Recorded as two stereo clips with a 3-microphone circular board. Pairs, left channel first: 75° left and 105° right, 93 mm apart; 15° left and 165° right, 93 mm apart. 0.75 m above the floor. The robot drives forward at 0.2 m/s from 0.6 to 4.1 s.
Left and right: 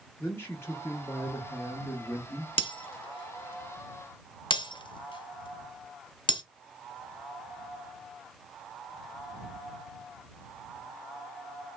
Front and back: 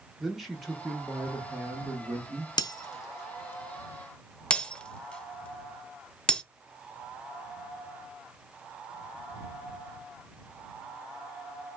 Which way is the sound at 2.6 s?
60° left.